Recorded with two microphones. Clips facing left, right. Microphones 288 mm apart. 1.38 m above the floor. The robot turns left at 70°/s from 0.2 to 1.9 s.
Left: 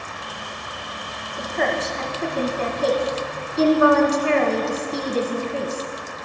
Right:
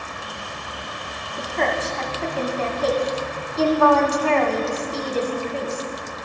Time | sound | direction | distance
1.4 | a woman speaking | 15° right (ahead or behind) | 1.2 m